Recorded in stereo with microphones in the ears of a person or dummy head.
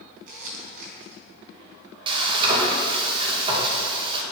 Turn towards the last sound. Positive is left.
turn(degrees=-30)  # may be behind; listen again after turning